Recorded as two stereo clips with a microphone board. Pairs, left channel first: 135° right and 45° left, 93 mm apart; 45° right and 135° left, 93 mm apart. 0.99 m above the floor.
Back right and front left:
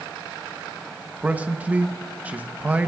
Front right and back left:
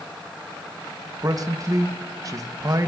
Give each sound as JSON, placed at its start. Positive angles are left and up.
{"t": 1.2, "sound": "a man speaking", "azimuth_deg": 110, "distance_m": 1.0}